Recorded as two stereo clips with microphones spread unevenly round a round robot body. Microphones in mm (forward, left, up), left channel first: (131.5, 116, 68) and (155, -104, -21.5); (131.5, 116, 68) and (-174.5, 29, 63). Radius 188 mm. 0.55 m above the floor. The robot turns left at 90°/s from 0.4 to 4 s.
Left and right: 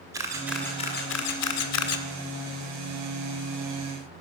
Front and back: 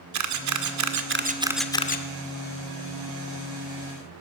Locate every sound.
0.1 s a camera shutter: 145° right, 2 m; by 2.0 s 65° left, 2 m